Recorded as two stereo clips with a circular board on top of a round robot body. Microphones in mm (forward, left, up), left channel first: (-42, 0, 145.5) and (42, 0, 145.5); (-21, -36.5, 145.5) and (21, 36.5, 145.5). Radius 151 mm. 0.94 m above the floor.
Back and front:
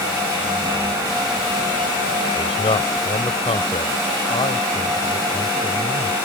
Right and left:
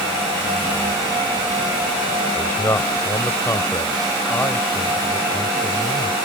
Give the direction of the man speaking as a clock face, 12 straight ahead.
6 o'clock.